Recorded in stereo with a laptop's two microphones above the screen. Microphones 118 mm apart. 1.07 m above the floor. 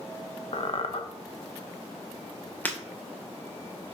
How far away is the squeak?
About 1.0 m.